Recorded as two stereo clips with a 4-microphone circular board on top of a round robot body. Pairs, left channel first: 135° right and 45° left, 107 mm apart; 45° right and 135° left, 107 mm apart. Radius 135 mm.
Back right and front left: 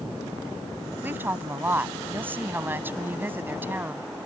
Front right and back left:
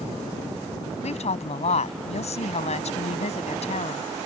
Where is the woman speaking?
25° right.